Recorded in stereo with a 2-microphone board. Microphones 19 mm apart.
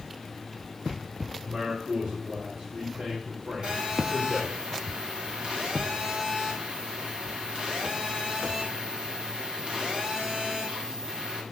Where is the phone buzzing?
55° right (ahead or behind), 2.5 m.